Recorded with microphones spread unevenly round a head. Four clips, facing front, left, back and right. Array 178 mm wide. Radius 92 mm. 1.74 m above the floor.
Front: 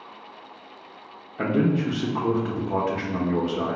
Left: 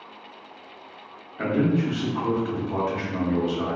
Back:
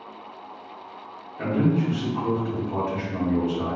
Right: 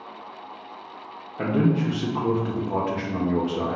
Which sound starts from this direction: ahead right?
A man speaking, at 1.4 s.